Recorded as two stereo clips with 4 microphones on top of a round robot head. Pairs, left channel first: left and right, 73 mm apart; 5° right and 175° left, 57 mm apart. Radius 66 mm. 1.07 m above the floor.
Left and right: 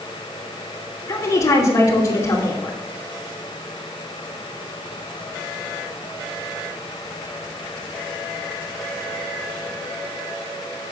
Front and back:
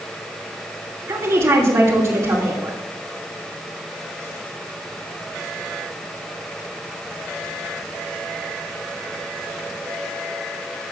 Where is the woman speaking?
130° left, 2.5 m.